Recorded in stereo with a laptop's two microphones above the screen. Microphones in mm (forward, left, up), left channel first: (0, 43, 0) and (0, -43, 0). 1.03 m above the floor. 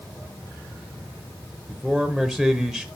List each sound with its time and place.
1.7 s a man speaking: centre (ahead or behind), 0.9 m